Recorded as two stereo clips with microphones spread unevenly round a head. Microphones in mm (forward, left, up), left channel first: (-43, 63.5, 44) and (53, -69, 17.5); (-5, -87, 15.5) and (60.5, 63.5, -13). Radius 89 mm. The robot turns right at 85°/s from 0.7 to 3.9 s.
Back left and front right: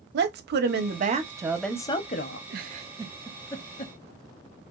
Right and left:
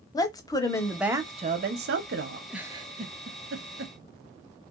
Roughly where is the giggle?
Ahead right.